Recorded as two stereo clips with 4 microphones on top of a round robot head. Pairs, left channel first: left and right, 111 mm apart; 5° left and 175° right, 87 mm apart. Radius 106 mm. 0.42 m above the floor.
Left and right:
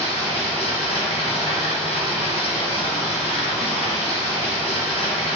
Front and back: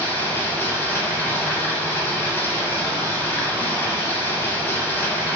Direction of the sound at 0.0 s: 70° left.